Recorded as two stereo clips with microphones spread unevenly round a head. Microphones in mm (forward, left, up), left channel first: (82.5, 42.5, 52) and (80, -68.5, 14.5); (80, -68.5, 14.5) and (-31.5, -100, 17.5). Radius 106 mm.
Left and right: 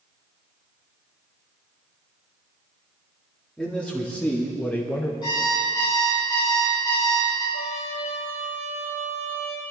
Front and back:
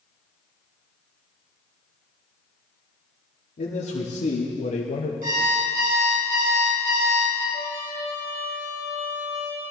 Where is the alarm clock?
155° left, 5.5 m.